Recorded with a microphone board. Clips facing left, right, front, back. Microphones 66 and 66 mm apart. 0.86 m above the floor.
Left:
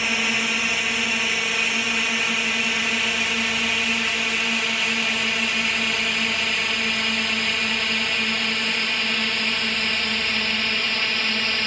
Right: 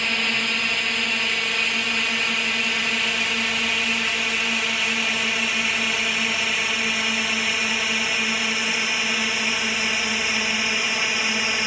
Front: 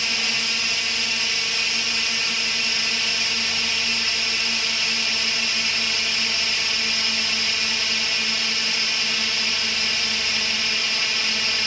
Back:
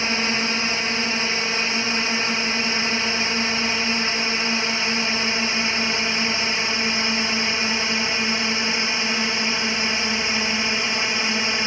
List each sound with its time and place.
0.0 s a drone: 170° left; by 11.7 s 155° right